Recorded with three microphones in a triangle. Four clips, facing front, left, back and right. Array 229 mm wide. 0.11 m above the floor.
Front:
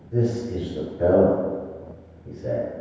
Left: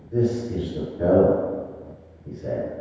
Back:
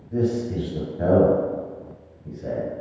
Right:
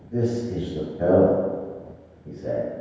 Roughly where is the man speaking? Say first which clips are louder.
Left 2 dB, back 1 dB; behind.